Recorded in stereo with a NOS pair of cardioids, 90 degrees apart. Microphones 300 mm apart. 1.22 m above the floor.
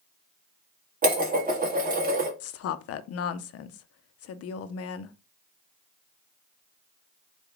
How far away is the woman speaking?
About 0.5 m.